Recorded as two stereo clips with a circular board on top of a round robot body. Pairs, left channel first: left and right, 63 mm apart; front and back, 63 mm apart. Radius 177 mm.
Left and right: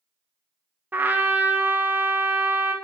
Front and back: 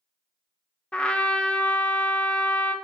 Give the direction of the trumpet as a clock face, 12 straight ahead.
2 o'clock.